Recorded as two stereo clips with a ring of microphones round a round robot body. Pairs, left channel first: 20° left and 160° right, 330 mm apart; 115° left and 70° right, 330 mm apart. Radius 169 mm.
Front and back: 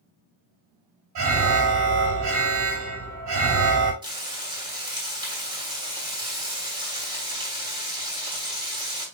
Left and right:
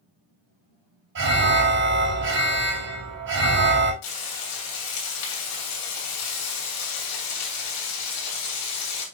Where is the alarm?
120° right, 4.5 m.